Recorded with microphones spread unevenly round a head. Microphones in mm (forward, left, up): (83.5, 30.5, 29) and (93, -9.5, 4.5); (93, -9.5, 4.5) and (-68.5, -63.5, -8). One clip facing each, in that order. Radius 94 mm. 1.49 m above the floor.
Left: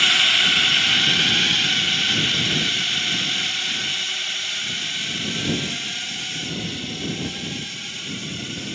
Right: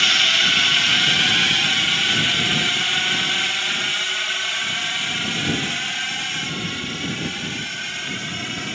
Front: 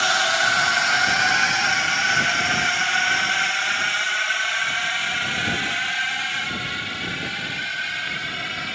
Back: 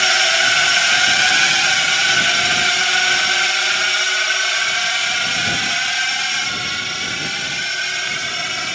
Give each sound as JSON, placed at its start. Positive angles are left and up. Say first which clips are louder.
{"t": 0.0, "sound": "a drone", "louder": "even, back 2 dB", "azimuth_deg": -125}